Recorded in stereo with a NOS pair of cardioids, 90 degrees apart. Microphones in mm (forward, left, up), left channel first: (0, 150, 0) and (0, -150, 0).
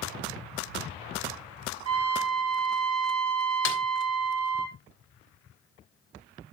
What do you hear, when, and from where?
1.9 s a trumpet: 55° right, 4 m
3.6 s a snare drum: 45° left, 3 m